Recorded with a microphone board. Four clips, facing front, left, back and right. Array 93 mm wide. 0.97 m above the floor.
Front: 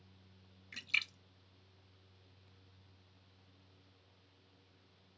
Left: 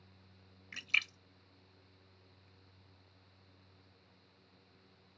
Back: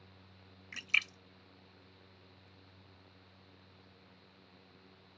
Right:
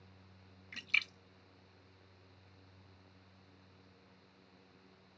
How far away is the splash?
About 0.7 m.